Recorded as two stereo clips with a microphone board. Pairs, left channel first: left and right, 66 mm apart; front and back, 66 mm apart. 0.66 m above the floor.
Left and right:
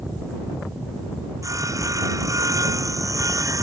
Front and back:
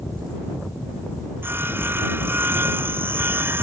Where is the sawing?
120° right.